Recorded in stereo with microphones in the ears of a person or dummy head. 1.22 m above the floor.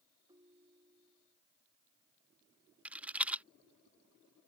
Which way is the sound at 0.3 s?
20° right (ahead or behind).